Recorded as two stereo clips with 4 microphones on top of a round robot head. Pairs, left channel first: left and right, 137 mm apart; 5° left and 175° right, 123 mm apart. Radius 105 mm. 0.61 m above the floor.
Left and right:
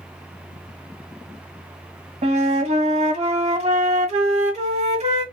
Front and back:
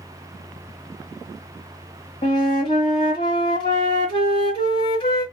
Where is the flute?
45° right, 1.6 m.